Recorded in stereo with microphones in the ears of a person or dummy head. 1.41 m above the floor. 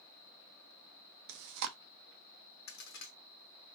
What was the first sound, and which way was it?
Chewing, 60° right (ahead or behind).